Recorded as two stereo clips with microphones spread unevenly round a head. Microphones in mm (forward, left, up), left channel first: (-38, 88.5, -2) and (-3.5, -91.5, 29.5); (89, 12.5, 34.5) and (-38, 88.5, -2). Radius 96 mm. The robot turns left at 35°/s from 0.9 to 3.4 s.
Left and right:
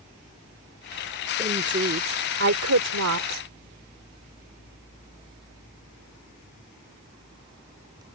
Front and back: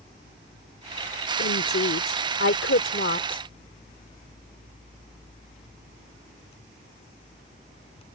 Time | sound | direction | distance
1.4 | a woman speaking | 15° right | ?